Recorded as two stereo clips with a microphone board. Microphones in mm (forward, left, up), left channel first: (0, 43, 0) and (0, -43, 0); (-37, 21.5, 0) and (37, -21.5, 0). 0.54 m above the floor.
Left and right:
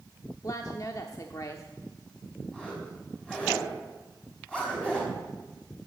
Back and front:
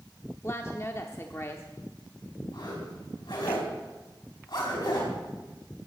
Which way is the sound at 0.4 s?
110° left.